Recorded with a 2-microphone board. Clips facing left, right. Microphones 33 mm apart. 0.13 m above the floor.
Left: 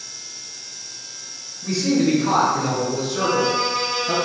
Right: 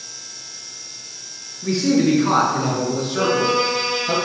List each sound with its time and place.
1.6 s a man speaking: 30° right (ahead or behind), 2 m; by 4.2 s 15° right (ahead or behind), 2.5 m
3.2 s a violin: 35° right (ahead or behind), 0.8 m